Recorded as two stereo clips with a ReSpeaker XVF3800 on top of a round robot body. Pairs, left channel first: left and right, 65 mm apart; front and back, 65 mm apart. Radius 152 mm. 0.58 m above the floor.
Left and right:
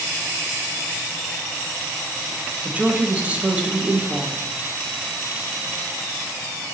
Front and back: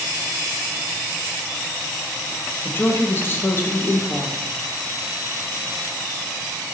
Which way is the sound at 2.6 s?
30° right.